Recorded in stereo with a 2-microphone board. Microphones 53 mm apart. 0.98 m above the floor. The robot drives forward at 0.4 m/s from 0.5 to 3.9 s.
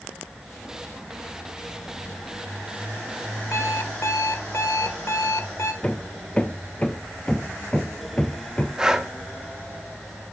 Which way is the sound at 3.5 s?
65° left (ahead or behind).